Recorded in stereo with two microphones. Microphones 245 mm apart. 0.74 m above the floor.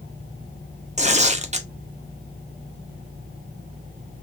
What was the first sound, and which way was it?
Tearing paper, 30° right (ahead or behind).